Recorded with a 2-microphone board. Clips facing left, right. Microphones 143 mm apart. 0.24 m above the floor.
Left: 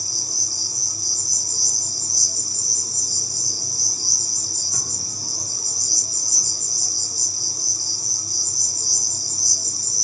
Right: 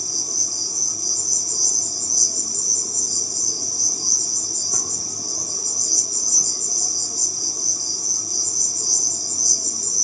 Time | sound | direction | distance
0.0 | an insect | 50° right (ahead or behind) | 0.7 m